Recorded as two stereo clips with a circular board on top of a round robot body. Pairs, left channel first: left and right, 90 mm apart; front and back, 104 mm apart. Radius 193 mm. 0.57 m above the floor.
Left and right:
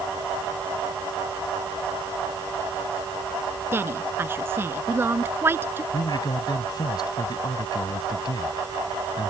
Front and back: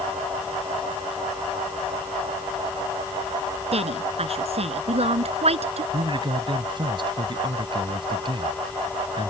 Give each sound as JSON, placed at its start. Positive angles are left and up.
{"t": 3.7, "sound": "a woman speaking", "azimuth_deg": -155}
{"t": 5.9, "sound": "a man speaking", "azimuth_deg": 135}